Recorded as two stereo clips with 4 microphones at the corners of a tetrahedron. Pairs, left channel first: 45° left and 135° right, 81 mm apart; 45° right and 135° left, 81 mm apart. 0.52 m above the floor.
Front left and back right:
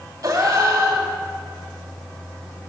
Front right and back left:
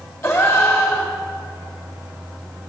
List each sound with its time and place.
0.2 s a gasp: 100° right, 1.3 m